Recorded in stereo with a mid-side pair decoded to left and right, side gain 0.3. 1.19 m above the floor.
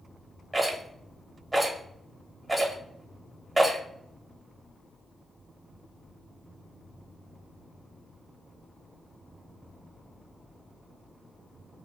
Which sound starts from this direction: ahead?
A rattle, at 0.5 s.